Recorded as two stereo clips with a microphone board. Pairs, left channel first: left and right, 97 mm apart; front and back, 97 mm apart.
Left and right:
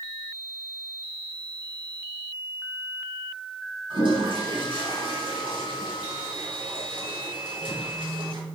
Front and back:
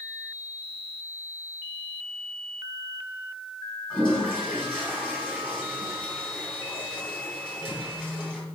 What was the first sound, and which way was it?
A toilet flushing, 80° right.